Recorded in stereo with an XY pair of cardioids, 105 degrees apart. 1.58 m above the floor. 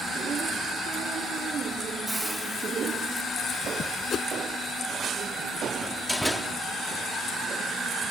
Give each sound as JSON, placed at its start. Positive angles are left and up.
{"t": 2.1, "sound": "a hiss", "azimuth_deg": -15}
{"t": 4.1, "sound": "a whoosh", "azimuth_deg": 50}
{"t": 5.8, "sound": "a door slam", "azimuth_deg": 5}